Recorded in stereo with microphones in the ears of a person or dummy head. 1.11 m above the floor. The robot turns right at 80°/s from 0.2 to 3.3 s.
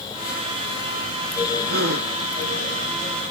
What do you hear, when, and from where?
1.7 s a gasp: 105° right, 0.8 m; by 2.1 s 70° right, 0.8 m